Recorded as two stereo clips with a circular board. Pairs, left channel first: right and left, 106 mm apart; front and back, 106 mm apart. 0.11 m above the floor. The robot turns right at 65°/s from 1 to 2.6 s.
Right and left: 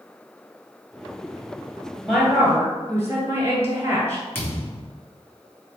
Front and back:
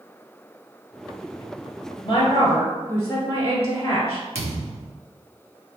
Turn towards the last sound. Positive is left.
turn(degrees=-160)